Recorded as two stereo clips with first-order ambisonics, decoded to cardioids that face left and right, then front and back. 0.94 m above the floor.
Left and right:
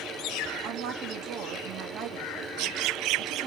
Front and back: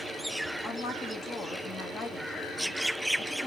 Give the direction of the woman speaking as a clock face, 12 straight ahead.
2 o'clock.